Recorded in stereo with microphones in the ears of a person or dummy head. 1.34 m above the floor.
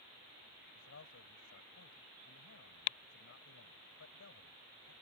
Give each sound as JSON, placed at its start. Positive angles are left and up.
{"t": 0.8, "sound": "a man speaking", "side_deg": 85}